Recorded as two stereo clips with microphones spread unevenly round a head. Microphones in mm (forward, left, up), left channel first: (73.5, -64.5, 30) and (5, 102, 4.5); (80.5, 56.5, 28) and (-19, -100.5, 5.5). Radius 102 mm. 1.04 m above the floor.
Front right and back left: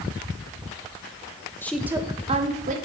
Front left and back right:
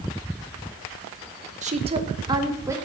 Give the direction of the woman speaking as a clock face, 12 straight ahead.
5 o'clock.